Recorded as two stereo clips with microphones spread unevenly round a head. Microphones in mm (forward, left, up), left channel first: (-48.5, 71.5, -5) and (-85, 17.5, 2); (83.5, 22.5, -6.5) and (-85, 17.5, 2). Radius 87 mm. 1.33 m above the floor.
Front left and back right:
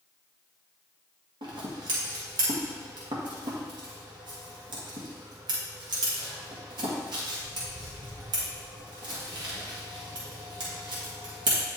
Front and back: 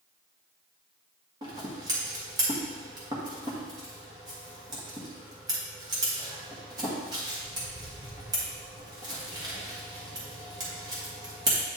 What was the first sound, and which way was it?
Scissors, 110° right.